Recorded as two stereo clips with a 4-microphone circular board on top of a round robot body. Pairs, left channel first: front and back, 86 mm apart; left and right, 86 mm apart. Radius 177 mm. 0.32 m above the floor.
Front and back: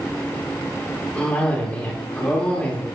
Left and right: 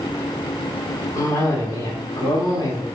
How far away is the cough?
About 1.6 m.